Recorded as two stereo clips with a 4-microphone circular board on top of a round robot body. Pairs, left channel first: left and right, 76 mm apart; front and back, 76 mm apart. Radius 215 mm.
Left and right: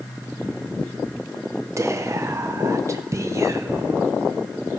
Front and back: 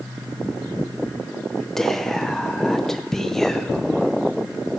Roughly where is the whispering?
Right.